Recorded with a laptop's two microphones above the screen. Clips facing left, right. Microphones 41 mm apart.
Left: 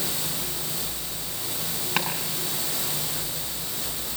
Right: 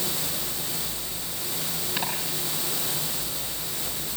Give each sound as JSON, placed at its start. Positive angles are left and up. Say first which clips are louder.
{"t": 2.0, "sound": "chopping", "louder": "left 4 dB", "side_deg": 75, "distance_m": 8.5}